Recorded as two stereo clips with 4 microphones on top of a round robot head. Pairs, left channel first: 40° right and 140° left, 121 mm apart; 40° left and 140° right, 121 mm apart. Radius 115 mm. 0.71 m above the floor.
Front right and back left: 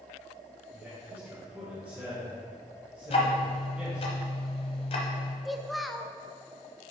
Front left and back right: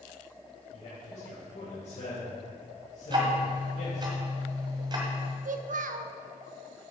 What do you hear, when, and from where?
0.7 s a man speaking: 70° left, 3 m
3.1 s ticking: 85° right, 1.0 m
5.5 s a child speaking: 130° right, 0.6 m